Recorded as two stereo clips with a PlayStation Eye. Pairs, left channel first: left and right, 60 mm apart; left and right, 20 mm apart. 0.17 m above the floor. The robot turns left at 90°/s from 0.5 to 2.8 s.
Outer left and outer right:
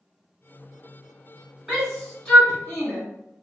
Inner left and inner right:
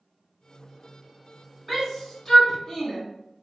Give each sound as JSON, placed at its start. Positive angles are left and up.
{"t": 1.7, "sound": "a shout", "side_deg": -10, "distance_m": 1.7}